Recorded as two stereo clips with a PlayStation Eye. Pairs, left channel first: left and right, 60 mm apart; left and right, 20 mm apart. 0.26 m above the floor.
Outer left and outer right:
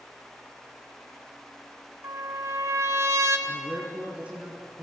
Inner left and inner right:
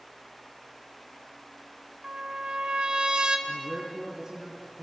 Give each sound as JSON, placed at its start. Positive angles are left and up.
{"t": 2.0, "sound": "a trumpet", "side_deg": -55, "distance_m": 1.9}
{"t": 3.5, "sound": "a man speaking", "side_deg": -20, "distance_m": 3.0}